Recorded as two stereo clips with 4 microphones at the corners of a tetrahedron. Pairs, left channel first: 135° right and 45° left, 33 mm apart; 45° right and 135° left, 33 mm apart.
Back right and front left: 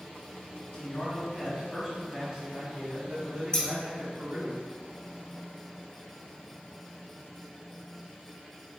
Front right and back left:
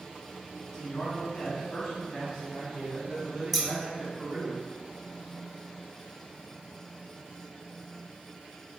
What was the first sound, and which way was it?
A man speaking, 110° right.